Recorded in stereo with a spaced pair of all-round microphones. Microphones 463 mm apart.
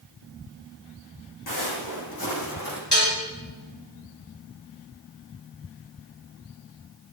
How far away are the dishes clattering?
About 5 m.